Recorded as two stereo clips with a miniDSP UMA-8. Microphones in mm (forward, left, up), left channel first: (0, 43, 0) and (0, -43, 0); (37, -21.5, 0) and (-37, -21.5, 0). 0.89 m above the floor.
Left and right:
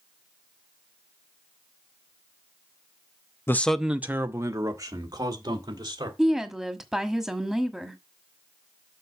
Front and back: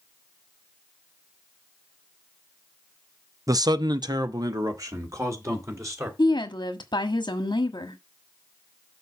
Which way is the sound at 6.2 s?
5° right.